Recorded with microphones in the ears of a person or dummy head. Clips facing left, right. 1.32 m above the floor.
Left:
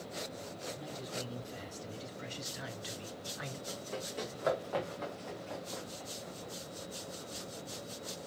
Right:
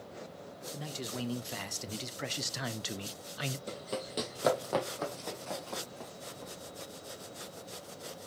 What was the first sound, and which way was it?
A man speaking, 80° right.